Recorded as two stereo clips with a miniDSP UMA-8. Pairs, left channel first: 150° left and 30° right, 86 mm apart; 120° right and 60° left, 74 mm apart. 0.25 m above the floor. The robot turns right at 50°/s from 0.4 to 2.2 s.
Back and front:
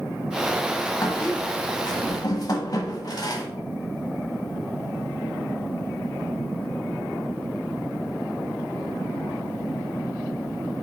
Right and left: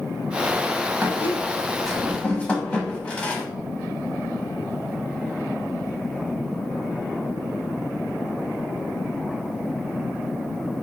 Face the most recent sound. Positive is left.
turn(degrees=170)